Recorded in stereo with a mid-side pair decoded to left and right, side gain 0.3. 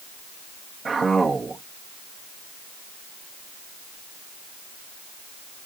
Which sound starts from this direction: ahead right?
A man speaking, at 0.8 s.